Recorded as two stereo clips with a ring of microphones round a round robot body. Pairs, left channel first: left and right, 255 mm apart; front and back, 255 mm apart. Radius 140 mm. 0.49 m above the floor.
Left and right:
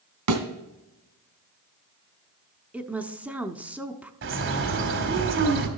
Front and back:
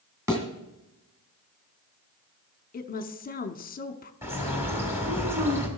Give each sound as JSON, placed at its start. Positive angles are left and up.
{"t": 0.3, "sound": "a thud", "azimuth_deg": -100, "distance_m": 2.0}
{"t": 2.7, "sound": "a woman speaking", "azimuth_deg": -10, "distance_m": 0.9}
{"t": 4.2, "sound": "a bird", "azimuth_deg": -100, "distance_m": 1.7}